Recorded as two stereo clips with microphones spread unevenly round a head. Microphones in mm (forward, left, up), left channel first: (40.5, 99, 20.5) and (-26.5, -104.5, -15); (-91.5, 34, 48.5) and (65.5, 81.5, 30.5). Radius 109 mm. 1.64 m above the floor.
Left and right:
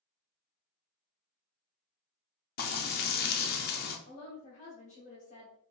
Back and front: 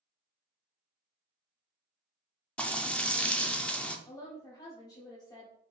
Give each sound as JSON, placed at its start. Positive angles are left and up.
{"t": 2.6, "sound": "frying", "azimuth_deg": 115, "distance_m": 0.6}
{"t": 4.1, "sound": "a woman speaking", "azimuth_deg": 130, "distance_m": 0.9}